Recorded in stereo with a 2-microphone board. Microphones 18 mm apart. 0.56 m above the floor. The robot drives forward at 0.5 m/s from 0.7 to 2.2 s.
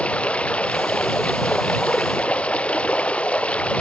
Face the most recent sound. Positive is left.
turn(degrees=85)